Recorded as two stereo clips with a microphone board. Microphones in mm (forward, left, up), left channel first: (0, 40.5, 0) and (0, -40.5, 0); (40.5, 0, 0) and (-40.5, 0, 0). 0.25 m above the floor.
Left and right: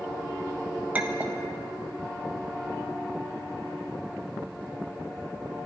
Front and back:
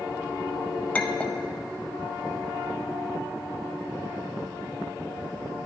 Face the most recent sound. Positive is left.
turn(degrees=-50)